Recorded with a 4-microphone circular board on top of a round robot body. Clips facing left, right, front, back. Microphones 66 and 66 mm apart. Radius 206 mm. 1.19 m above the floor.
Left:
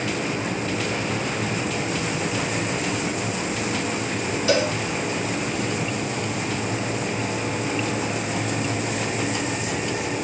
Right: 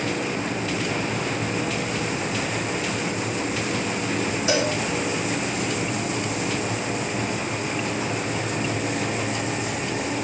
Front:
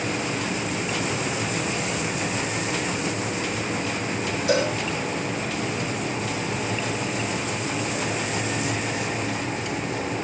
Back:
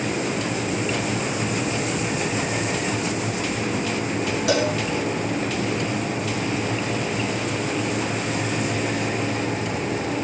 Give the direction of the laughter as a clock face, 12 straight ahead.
No laughter in this recording.